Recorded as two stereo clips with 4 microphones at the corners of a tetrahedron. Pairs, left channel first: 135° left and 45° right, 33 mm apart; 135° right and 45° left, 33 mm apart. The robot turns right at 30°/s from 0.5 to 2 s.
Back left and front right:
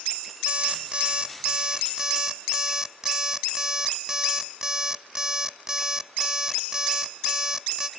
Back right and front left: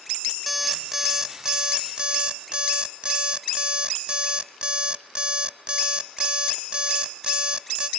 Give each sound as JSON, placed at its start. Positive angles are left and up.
{"t": 0.5, "sound": "an alarm clock", "azimuth_deg": -35, "distance_m": 0.8}